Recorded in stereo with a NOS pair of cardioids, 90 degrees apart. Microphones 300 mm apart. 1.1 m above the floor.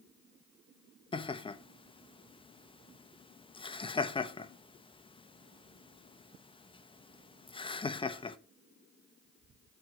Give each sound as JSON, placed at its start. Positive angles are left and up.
{"t": 1.1, "sound": "laughter", "azimuth_deg": 20, "distance_m": 0.9}